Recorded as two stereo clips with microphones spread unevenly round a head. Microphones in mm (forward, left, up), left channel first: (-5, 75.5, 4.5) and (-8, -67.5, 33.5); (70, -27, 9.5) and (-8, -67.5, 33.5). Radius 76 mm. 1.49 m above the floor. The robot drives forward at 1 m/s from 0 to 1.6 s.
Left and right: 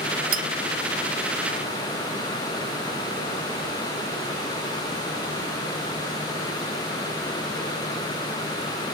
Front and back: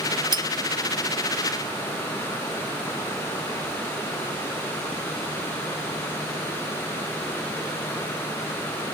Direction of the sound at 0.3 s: 120° right.